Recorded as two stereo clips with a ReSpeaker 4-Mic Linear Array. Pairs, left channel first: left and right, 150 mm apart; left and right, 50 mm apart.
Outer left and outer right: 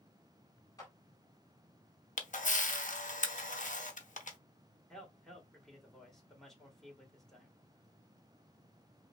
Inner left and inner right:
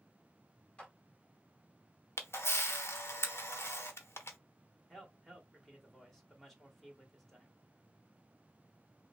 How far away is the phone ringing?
I don't hear a phone ringing.